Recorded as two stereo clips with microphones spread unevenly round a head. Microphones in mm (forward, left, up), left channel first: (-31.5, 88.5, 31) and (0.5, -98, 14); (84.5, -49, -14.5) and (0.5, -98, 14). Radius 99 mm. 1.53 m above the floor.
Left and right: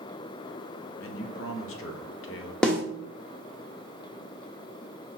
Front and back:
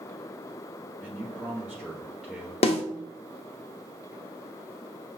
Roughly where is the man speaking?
Behind left.